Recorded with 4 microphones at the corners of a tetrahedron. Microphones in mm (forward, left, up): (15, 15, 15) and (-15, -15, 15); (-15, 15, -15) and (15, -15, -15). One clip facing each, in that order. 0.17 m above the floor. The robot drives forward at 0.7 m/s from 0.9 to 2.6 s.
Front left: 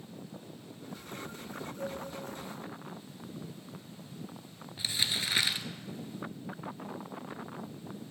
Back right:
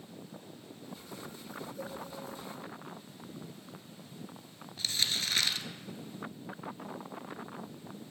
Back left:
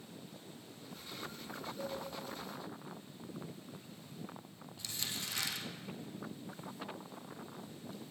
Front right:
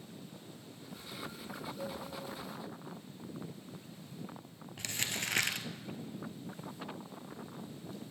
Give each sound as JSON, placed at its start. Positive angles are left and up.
{"t": 1.8, "sound": "a cowbell", "azimuth_deg": -150, "distance_m": 4.5}
{"t": 4.8, "sound": "crumpling", "azimuth_deg": -30, "distance_m": 0.6}